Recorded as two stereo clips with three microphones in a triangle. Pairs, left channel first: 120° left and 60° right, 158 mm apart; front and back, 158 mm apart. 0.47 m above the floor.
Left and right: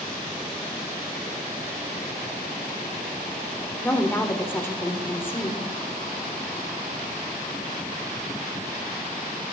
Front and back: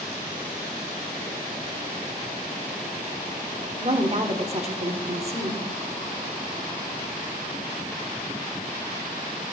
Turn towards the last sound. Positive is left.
turn(degrees=-170)